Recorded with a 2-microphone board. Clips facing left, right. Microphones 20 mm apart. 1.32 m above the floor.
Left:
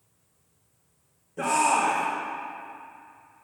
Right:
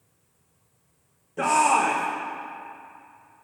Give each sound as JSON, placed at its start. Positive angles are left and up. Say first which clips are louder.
{"t": 1.4, "sound": "a shout", "louder": "right 3 dB", "side_deg": -25, "distance_m": 0.7}